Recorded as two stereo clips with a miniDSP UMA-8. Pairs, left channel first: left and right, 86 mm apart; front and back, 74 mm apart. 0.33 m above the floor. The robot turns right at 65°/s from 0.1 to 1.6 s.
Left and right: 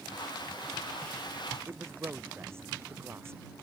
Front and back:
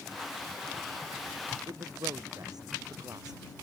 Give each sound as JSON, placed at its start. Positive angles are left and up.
{"t": 1.7, "sound": "a man speaking", "azimuth_deg": -150}